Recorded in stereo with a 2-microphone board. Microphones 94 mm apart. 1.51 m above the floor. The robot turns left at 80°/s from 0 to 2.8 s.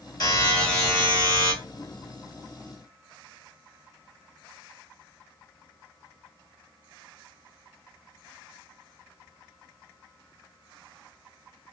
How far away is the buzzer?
About 2.5 m.